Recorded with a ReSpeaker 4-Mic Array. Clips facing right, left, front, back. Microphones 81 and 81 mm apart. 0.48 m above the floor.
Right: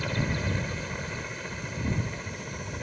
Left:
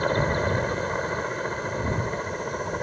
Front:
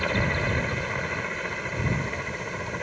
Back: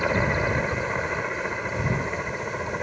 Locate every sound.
0.0 s a helicopter: 110° left